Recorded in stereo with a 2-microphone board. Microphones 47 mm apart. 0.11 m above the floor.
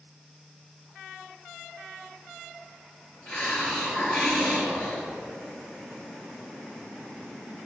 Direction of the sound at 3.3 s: 20° left (ahead or behind).